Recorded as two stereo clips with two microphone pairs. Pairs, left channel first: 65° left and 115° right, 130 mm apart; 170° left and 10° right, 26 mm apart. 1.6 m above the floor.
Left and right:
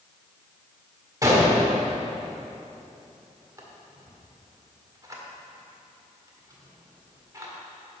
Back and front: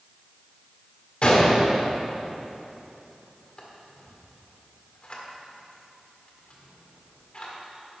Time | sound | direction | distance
1.2 | a gunshot | 170° right | 1.6 m